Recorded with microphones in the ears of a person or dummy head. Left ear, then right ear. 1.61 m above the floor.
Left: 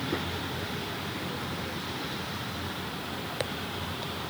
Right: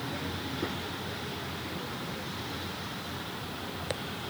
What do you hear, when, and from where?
Only background noise.